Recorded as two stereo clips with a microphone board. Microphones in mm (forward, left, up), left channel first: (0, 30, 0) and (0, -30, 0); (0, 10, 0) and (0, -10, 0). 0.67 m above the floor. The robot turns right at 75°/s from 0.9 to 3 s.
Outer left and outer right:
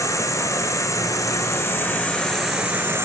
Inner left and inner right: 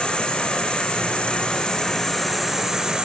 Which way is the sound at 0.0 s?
65° left.